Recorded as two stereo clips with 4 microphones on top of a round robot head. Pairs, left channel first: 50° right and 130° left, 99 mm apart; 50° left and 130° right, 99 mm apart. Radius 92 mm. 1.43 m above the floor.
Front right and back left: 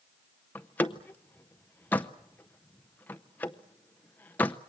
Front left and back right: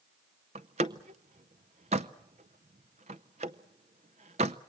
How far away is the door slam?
About 0.5 m.